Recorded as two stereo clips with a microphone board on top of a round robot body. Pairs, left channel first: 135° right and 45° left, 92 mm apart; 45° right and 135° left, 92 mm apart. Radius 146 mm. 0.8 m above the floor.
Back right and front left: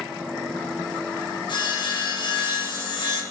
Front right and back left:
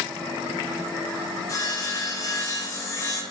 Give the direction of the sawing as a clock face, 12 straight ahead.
3 o'clock.